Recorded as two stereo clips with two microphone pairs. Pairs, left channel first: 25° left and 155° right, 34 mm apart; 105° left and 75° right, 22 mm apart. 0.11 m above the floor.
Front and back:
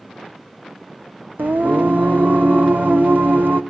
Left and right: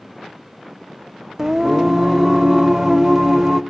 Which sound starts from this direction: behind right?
Singing, at 1.4 s.